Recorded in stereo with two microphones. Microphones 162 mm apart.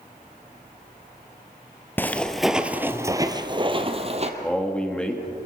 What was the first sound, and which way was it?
Footsteps, 10° left (ahead or behind).